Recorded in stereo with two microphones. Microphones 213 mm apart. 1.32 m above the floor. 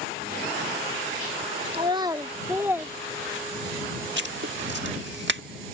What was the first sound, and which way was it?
A child speaking, 25° right (ahead or behind).